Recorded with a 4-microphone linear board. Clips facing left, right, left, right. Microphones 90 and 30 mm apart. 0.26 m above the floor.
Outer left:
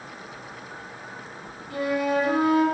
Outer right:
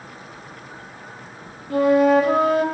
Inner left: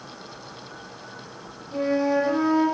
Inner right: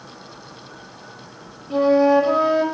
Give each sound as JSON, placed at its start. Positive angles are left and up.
{"t": 1.7, "sound": "a flute", "side_deg": -55, "distance_m": 5.0}